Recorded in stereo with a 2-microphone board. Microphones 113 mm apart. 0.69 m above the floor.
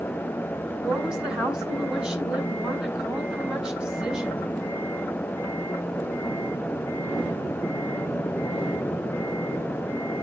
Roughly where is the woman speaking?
Centre.